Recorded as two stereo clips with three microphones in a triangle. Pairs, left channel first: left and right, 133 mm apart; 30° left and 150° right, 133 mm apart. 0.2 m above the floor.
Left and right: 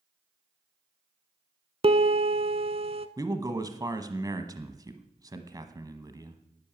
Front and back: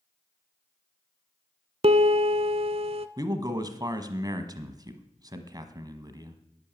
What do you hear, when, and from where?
1.8 s a piano: 120° right, 0.8 m
3.2 s a man speaking: 120° right, 1.2 m